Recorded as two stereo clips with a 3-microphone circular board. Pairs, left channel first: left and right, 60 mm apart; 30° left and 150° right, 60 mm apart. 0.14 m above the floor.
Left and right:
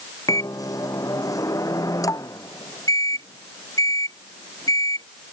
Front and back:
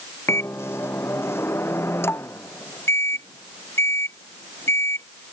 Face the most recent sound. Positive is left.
turn(degrees=75)